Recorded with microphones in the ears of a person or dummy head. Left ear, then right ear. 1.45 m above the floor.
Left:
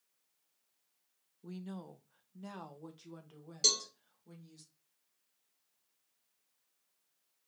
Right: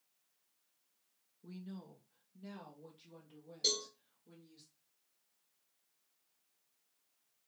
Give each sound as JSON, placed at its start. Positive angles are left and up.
{"t": 1.4, "sound": "a woman speaking", "side_deg": 25, "distance_m": 0.5}
{"t": 3.6, "sound": "a cowbell", "side_deg": 70, "distance_m": 1.4}